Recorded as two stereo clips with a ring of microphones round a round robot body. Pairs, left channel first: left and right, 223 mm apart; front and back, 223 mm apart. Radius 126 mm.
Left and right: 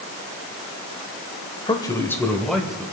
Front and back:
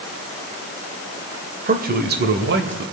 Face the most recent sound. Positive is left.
turn(degrees=-175)